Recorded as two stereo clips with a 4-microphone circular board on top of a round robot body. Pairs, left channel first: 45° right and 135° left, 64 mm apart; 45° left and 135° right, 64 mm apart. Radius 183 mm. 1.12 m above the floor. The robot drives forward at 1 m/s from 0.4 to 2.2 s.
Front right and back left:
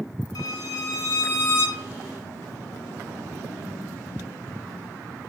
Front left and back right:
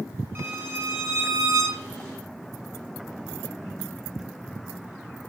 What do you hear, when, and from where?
0.3 s a violin: 75° right, 4 m; by 1.8 s 95° right, 4 m